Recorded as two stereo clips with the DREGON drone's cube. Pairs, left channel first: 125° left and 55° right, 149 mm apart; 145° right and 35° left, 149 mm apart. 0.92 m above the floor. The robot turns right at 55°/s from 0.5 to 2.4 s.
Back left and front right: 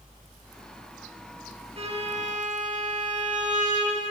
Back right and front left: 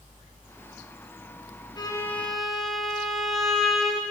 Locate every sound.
1.8 s a violin: 90° right, 1.0 m; by 4.0 s 55° right, 1.0 m